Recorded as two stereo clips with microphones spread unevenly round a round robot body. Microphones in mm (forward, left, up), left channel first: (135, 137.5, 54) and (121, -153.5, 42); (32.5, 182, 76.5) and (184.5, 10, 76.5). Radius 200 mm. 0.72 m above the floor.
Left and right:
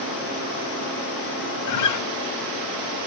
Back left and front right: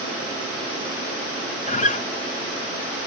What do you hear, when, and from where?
1.7 s a guitar: 70° left